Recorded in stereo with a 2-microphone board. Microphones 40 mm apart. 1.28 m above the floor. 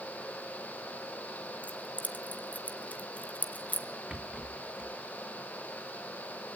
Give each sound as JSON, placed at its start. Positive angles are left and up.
{"t": 1.6, "sound": "keys jangling", "side_deg": 35, "distance_m": 1.7}
{"t": 4.1, "sound": "a rattle", "side_deg": -15, "distance_m": 2.5}